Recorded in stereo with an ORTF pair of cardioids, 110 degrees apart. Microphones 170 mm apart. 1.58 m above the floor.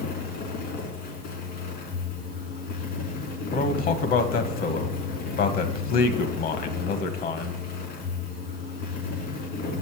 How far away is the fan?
About 3.5 m.